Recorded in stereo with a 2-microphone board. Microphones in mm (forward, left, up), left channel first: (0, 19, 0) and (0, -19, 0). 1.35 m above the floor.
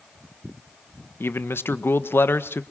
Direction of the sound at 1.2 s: 90° left.